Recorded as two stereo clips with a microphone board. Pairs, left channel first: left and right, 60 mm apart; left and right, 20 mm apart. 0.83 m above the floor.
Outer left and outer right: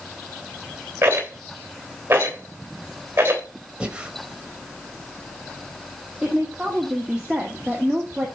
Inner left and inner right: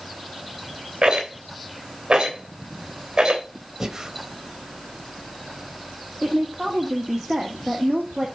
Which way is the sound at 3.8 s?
20° right (ahead or behind).